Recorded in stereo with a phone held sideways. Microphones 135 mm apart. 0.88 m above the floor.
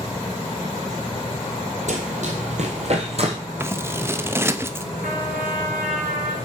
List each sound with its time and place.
1.9 s running footsteps: 60° right (ahead or behind), 1.7 m; by 3.4 s 45° right (ahead or behind), 1.7 m
3.6 s scissors: 20° right (ahead or behind), 0.6 m
5.0 s a trumpet: 85° right, 4 m